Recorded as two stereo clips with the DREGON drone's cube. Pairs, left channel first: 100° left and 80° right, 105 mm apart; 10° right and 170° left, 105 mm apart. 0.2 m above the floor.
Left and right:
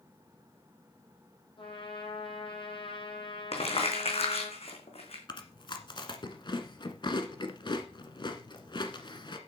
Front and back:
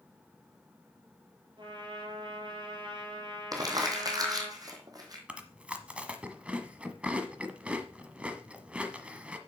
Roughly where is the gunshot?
I don't hear a gunshot.